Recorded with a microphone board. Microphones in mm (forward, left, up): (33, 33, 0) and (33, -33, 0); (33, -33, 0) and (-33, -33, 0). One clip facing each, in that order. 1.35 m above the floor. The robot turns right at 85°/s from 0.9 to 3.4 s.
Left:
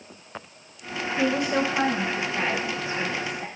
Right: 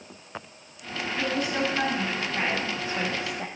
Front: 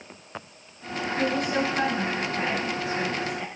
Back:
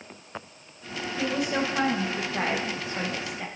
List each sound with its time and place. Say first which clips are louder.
1.2 s a woman speaking: left 4 dB, front 1 dB; 75° left, 1.5 m; by 3.5 s 95° right, 1.5 m